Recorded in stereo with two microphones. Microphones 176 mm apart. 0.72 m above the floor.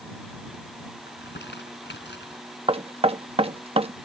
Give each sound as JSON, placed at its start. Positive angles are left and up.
{"t": 1.1, "sound": "crumpling", "side_deg": 90}
{"t": 2.7, "sound": "knocking", "side_deg": -35}